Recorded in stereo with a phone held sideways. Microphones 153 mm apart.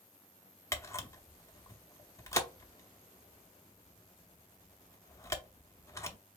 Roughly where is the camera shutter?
Left.